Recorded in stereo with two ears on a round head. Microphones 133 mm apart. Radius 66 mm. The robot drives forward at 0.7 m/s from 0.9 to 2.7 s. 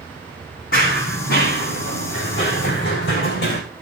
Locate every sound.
0.7 s running footsteps: 65° left (ahead or behind), 3 m; by 3.6 s 75° left (ahead or behind), 4.5 m